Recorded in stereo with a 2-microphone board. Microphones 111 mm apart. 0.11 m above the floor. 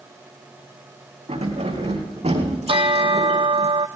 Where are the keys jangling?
80° right, 5 m; by 3.7 s 75° right (ahead or behind), 3.5 m.